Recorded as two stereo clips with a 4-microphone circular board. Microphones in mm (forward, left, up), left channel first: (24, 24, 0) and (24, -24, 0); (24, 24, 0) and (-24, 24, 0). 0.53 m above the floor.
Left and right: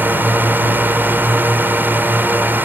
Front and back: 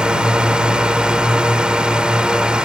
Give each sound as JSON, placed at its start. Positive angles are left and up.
{"t": 0.0, "sound": "a drone", "azimuth_deg": -115}